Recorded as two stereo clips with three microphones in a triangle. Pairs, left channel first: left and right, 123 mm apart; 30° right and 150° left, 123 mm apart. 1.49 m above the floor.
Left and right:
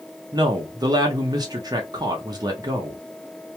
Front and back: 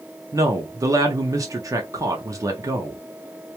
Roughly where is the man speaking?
Behind right.